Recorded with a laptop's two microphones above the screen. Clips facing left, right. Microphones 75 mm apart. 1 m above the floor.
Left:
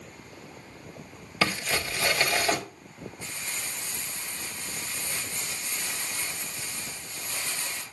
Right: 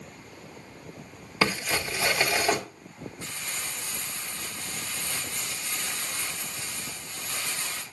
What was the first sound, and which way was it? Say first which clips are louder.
Crumpling: right 1 dB; 15° right (ahead or behind).